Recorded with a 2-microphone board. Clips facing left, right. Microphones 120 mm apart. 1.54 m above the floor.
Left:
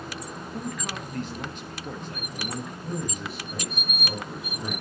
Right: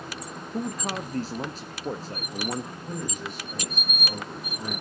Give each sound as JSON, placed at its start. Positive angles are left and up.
{"t": 0.5, "sound": "a man speaking", "side_deg": -35, "distance_m": 0.9}
{"t": 2.8, "sound": "a man speaking", "side_deg": 0, "distance_m": 6.5}